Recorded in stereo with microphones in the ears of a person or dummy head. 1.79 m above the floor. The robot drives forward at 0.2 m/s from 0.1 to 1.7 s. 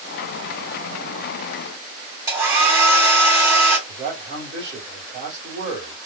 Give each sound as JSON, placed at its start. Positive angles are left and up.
{"t": 2.3, "sound": "a hair dryer", "side_deg": -15, "distance_m": 1.8}
{"t": 3.9, "sound": "a man speaking", "side_deg": -40, "distance_m": 2.5}